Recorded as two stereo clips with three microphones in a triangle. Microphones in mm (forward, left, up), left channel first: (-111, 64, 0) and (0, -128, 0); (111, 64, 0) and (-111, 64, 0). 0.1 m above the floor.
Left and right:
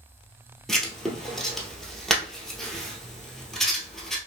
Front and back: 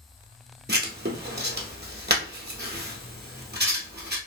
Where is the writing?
150° right, 1.0 m.